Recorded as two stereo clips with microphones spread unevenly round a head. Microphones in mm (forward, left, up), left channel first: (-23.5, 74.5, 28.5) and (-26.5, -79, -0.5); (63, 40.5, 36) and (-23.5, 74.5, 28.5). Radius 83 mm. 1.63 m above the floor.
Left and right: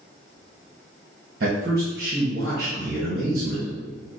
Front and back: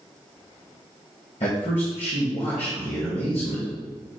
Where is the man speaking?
55° right, 1.0 m.